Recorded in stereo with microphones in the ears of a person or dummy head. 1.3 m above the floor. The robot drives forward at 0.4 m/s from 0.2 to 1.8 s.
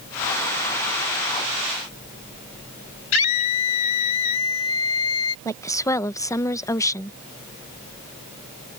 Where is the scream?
85° left.